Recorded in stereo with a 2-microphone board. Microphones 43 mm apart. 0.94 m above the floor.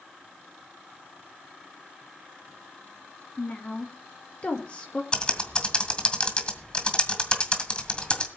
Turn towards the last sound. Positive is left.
turn(degrees=25)  # may be behind; listen again after turning